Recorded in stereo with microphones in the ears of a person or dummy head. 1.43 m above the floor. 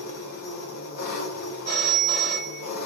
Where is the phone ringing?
20° left (ahead or behind), 1.4 m.